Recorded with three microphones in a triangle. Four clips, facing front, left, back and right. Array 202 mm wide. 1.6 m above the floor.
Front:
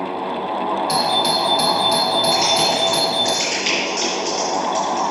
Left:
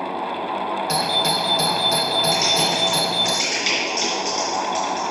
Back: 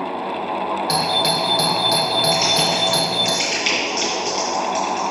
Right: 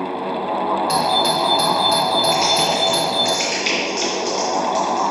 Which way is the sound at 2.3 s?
145° right.